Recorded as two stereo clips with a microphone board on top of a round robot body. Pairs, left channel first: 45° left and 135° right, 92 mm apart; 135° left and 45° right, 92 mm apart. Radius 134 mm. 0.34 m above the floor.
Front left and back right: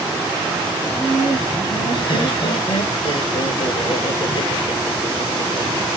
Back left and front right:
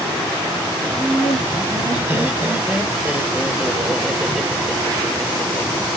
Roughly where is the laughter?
Ahead.